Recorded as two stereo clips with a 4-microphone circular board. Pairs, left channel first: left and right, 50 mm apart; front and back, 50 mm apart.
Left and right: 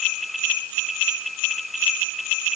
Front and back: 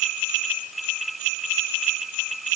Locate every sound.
Only background noise.